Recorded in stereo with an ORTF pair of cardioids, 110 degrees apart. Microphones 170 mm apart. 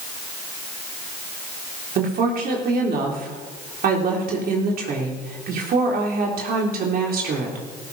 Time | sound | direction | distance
1.9 | a woman speaking | 55° right | 3.5 m